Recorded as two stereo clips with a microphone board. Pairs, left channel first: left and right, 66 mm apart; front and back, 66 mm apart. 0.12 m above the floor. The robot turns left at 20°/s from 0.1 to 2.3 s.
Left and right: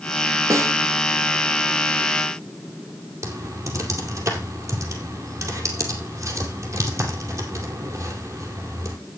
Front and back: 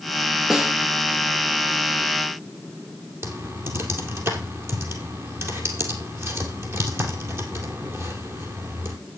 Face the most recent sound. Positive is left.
turn(degrees=-135)